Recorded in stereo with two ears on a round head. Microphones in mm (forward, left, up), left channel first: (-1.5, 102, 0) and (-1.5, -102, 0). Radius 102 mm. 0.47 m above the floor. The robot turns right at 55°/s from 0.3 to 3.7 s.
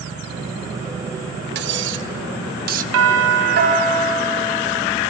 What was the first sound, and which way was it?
Cutlery clinking, 50° right (ahead or behind).